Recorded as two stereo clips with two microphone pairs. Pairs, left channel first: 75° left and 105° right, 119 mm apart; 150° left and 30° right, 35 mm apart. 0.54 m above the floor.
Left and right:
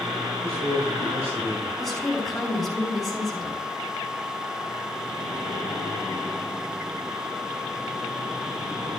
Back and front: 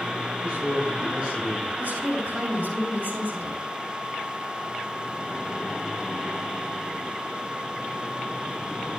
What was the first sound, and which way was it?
A man speaking, 75° right.